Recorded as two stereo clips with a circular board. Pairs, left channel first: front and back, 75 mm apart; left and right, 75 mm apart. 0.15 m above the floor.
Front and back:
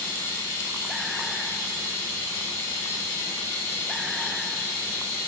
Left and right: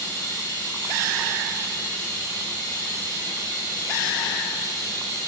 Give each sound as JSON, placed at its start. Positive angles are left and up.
{"t": 0.0, "sound": "running water", "azimuth_deg": 70, "distance_m": 1.4}